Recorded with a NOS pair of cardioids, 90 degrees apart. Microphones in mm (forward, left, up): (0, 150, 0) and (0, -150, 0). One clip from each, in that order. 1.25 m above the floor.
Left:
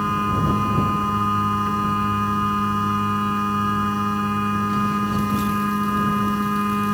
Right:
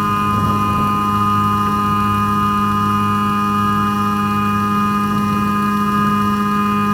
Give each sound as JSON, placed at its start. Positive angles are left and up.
{"t": 0.0, "sound": "a machine running", "azimuth_deg": -35}